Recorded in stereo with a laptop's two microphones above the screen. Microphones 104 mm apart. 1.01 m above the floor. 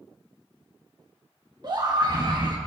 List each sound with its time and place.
1.6 s a scream: 40° right (ahead or behind), 1.2 m